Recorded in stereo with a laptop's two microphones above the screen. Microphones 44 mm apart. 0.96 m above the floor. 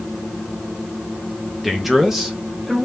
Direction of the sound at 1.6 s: 5° right (ahead or behind).